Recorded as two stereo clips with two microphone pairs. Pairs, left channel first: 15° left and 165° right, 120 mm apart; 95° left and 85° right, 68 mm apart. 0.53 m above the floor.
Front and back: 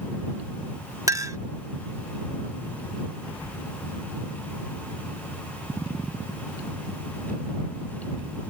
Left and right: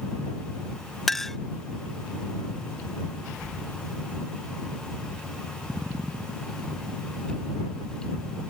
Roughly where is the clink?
Behind.